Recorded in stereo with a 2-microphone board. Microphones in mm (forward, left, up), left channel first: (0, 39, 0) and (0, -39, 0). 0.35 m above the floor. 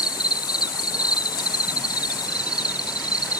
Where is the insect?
60° left (ahead or behind), 0.7 m.